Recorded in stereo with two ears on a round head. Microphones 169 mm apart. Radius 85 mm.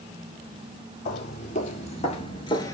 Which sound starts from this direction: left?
Footsteps, at 1.1 s.